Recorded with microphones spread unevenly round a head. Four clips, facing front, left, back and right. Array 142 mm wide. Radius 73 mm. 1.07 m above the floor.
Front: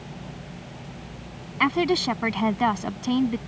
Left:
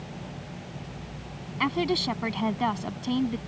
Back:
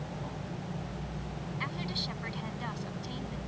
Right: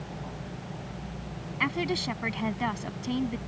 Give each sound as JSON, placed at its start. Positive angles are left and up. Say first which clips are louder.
{"t": 1.6, "sound": "a woman speaking", "louder": "left 4 dB, front 19 dB", "azimuth_deg": 10}